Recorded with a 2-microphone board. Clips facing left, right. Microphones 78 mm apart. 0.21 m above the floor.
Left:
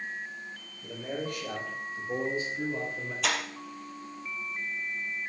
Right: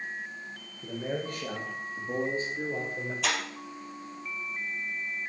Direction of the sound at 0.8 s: 40° right (ahead or behind).